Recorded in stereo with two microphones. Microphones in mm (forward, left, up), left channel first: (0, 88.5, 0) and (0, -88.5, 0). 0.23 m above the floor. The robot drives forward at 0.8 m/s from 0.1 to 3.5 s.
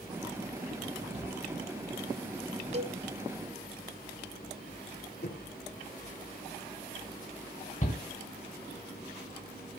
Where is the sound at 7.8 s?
45° left (ahead or behind), 1.5 m.